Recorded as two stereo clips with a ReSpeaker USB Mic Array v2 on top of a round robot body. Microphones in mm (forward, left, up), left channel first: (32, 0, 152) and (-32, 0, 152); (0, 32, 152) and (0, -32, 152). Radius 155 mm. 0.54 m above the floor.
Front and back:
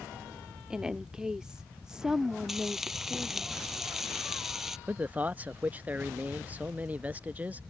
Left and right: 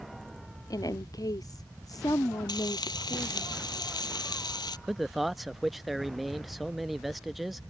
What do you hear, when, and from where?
0.7 s a woman speaking: 100° left
2.5 s frying: 95° left
4.9 s a man speaking: 175° right